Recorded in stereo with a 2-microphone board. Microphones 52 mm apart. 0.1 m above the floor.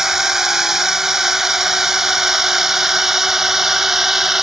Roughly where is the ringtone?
I don't hear a ringtone.